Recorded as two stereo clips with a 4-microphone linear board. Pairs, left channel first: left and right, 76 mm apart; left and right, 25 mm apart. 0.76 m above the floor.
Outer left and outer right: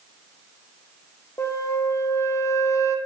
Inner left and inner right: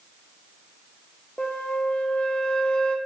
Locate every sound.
1.4 s a flute: 45° left (ahead or behind), 0.5 m